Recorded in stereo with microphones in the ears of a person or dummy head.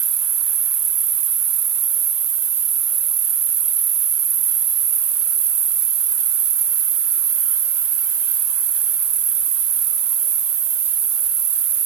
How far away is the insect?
About 1.1 m.